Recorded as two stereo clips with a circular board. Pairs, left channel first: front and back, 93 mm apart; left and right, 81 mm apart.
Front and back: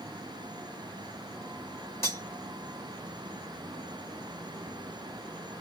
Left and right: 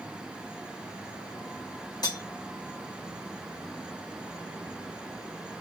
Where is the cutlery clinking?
60° left, 1.3 m.